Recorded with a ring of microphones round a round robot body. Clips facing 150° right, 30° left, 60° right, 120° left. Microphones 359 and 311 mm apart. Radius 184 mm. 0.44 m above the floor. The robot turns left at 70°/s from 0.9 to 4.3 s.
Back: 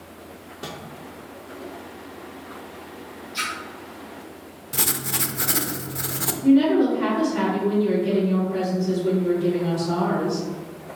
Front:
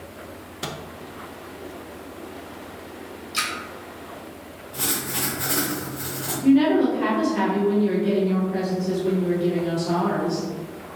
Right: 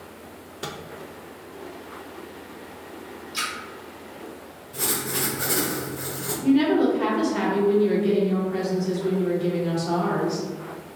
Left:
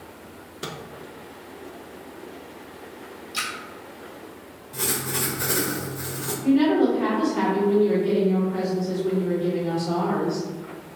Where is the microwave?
45° left, 0.5 m.